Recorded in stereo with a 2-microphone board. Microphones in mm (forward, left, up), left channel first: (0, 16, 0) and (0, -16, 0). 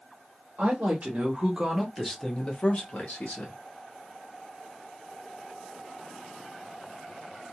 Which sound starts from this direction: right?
A woman speaking, at 0.6 s.